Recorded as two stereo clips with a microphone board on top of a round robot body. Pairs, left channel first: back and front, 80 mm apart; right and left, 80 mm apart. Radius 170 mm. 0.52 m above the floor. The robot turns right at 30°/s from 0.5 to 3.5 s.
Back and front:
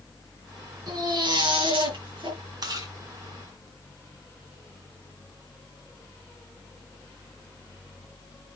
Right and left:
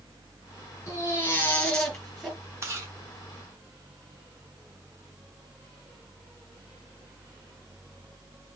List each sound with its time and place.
0.9 s a baby crying: 35° right, 4 m; by 2.4 s 10° left, 4 m
2.6 s chewing: 35° left, 3 m; by 2.9 s 45° left, 3 m